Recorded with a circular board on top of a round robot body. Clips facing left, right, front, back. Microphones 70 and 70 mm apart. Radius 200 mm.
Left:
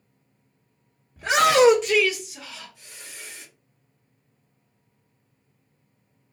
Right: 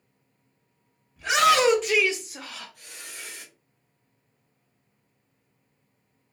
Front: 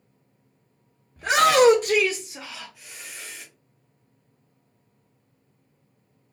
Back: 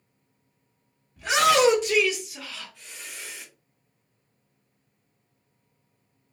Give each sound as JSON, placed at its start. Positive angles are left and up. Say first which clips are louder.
{"t": 1.2, "sound": "a shout", "louder": "left 3 dB, front 3 dB", "azimuth_deg": 40, "distance_m": 1.0}